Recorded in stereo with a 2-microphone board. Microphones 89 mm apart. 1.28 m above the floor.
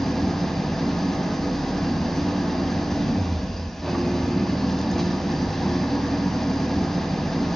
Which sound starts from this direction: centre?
An engine running, at 0.0 s.